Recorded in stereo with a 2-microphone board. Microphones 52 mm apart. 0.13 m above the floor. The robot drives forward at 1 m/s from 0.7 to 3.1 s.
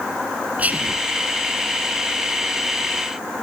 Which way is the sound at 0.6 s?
30° right (ahead or behind).